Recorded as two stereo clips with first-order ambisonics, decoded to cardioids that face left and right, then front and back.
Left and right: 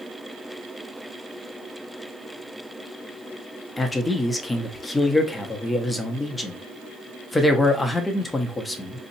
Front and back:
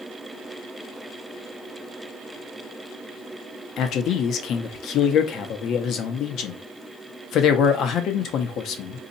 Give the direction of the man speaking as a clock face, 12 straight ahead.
12 o'clock.